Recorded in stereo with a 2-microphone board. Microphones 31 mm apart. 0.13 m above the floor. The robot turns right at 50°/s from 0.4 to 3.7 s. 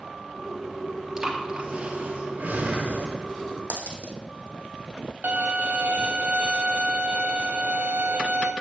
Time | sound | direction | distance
1.2 | breathing | 15° right (ahead or behind) | 3 m
3.7 | a dropped coin | 80° right | 2.5 m
5.2 | a violin | 60° right (ahead or behind) | 0.8 m